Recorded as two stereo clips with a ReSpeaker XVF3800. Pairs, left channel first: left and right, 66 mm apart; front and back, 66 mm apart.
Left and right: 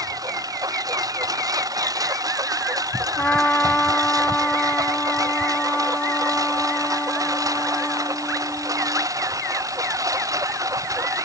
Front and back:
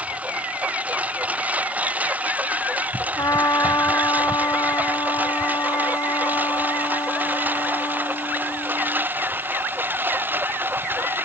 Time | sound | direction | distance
0.0 | a lawn mower | 110° right | ?
3.2 | a trumpet | 20° left | ?